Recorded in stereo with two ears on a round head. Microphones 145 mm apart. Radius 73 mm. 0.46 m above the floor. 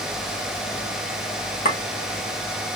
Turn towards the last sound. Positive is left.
turn(degrees=55)  # may be behind; listen again after turning